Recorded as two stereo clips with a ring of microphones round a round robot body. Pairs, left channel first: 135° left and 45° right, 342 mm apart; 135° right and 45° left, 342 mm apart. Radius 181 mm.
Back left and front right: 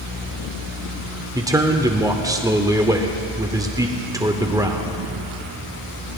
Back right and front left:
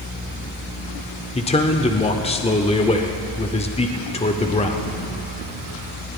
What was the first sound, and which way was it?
A man speaking, 105° right.